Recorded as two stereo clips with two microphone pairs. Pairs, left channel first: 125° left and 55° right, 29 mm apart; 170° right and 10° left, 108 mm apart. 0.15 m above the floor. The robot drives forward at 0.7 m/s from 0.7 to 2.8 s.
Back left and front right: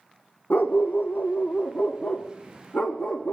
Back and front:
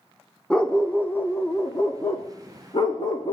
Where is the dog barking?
110° left, 1.9 m; by 3.3 s 140° left, 3 m.